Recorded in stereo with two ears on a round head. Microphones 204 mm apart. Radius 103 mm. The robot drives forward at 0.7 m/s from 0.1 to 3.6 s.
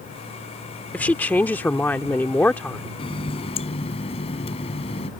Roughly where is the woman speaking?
Centre.